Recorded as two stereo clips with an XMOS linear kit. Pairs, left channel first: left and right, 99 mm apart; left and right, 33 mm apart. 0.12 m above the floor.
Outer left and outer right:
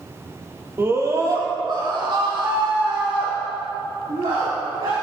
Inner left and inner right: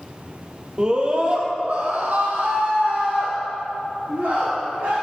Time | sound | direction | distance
0.8 | a scream | 25° right (ahead or behind) | 3 m